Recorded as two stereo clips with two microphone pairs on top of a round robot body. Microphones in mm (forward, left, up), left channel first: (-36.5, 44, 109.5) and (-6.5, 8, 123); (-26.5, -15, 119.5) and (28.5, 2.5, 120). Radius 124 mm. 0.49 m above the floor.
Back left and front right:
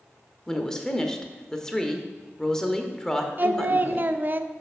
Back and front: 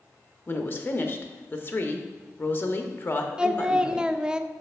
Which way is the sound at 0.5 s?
170° left.